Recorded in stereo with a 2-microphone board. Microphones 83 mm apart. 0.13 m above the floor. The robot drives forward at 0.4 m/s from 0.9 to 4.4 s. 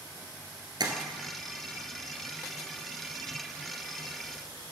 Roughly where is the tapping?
Right.